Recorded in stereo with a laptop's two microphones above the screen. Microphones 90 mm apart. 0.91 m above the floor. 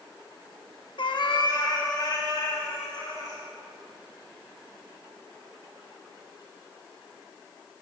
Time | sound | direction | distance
1.0 | a cat meowing | 60° left (ahead or behind) | 0.7 m